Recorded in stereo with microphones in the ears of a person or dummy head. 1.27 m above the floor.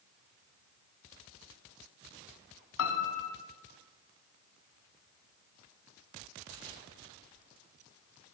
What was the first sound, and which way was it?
A piano, 70° left (ahead or behind).